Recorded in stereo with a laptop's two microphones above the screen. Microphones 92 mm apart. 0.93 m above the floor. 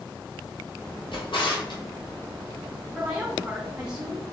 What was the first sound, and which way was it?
A drawer, 65° left (ahead or behind).